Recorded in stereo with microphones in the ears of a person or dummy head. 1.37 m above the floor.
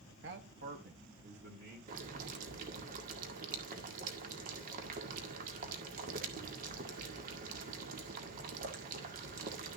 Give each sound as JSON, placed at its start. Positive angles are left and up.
{"t": 0.2, "sound": "a man speaking", "side_deg": -55, "distance_m": 0.8}
{"t": 1.9, "sound": "boiling", "side_deg": -50, "distance_m": 1.8}